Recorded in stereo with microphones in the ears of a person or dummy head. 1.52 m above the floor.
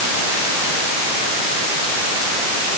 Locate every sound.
Only background noise.